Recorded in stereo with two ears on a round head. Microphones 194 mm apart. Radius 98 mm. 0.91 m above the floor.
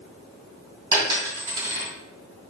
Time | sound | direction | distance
0.9 | a dropped coin | 20° right (ahead or behind) | 3 m